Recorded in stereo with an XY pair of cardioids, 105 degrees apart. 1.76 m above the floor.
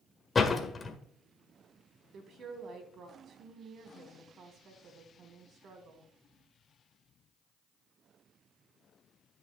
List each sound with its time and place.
0.3 s a door slam: 30° left, 1.8 m
2.1 s a woman speaking: 55° right, 4 m